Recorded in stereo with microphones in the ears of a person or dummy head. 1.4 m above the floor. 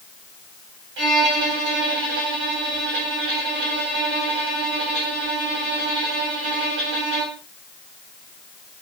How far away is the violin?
About 4.5 m.